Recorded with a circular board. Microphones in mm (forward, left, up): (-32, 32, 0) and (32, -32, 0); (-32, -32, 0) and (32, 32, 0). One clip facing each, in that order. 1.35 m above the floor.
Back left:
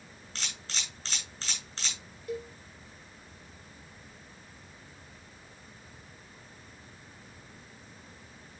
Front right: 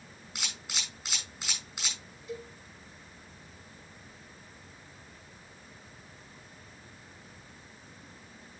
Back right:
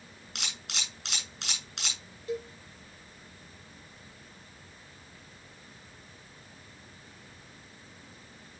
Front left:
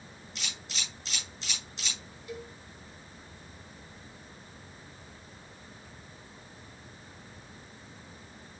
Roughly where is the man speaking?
No man speaking in this recording.